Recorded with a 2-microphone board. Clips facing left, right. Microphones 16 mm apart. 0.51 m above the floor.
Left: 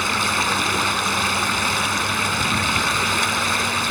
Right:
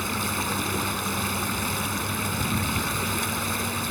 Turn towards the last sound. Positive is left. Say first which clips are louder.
# left 8 dB
turn(degrees=35)  # may be behind; listen again after turning